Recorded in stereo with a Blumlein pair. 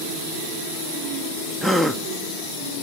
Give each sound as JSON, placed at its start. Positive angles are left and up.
{"t": 1.6, "sound": "a gasp", "azimuth_deg": -5, "distance_m": 0.6}